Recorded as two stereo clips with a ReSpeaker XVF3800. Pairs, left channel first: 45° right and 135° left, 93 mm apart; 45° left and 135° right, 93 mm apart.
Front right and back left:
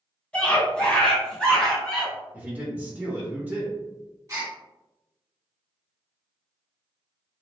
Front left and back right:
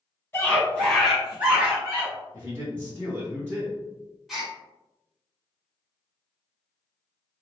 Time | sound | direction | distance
0.3 | a scream | 20° left | 1.3 m
2.3 | a man speaking | 170° right | 1.8 m
4.3 | a gasp | 140° left | 1.4 m